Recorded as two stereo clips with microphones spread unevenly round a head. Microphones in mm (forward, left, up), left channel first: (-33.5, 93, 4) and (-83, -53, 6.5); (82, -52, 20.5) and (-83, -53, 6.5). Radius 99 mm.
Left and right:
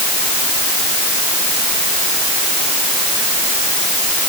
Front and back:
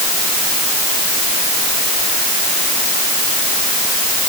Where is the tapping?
I don't hear tapping.